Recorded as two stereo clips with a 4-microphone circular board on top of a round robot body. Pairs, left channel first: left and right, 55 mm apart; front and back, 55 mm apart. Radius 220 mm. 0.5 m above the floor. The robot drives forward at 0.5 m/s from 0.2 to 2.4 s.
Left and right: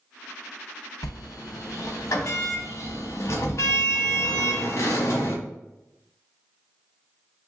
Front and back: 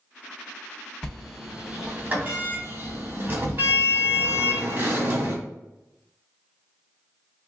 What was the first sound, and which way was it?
A sliding door, 80° left.